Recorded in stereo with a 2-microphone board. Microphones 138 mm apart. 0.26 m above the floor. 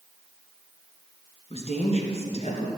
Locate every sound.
1.5 s a woman speaking: 45° left (ahead or behind), 3 m; by 2.7 s 55° left (ahead or behind), 3.5 m